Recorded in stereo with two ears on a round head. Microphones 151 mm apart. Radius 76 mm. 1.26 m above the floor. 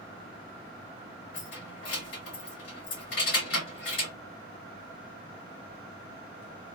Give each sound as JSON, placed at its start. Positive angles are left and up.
{"t": 1.3, "sound": "keys jangling", "side_deg": 75, "distance_m": 2.0}